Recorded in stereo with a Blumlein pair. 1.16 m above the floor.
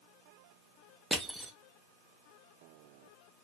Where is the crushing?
5° right, 0.6 m.